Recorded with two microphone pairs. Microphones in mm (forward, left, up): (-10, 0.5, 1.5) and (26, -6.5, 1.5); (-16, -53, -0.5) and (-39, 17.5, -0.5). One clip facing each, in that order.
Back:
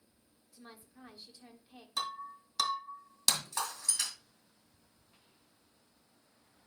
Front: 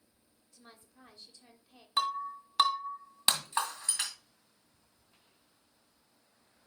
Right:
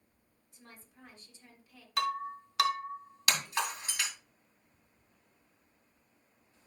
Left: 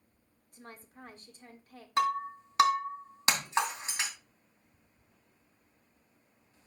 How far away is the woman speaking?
About 1.4 m.